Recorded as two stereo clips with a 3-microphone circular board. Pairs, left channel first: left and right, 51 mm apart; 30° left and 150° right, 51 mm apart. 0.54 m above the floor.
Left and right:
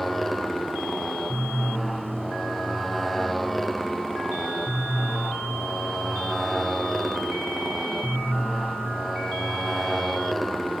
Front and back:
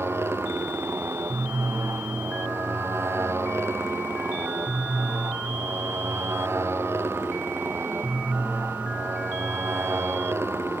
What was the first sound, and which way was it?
A motorcycle, 175° left.